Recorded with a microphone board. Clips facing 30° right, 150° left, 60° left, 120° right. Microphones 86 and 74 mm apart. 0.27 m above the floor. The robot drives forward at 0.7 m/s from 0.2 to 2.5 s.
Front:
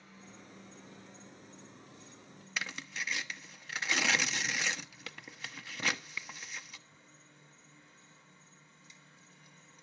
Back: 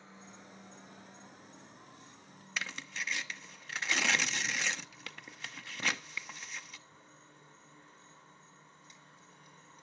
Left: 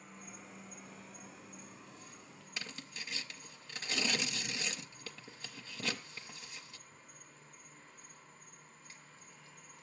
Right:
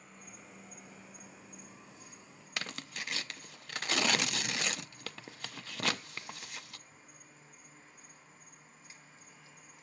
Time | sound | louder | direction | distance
0.0 | an insect | back 1 dB, left 2 dB | 150° left | 2 m
2.6 | tearing paper | even, right 6 dB | 120° right | 0.5 m